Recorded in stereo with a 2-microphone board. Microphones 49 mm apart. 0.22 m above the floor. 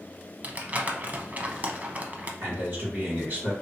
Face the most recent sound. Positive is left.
turn(degrees=-35)  # may be behind; listen again after turning